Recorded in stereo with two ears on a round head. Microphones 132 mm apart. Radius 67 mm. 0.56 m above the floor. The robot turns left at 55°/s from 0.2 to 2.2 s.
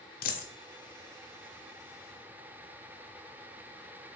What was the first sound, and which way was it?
A dropped coin, 60° left (ahead or behind).